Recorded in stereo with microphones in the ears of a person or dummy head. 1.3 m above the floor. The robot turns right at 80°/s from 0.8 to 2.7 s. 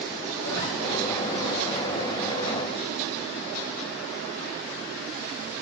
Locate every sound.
0.4 s a zipper: 20° left (ahead or behind), 0.8 m